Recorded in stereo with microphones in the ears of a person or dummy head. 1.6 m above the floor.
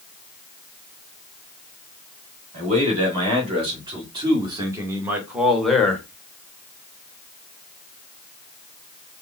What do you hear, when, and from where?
2.5 s a man speaking: 40° right (ahead or behind), 2.5 m; by 6.0 s 10° left (ahead or behind), 0.9 m